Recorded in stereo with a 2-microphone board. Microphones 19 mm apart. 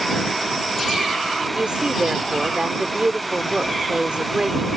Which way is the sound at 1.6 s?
55° right (ahead or behind).